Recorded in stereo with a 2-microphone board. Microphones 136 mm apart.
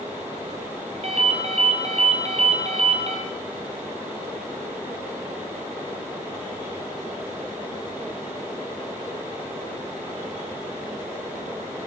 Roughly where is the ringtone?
Right.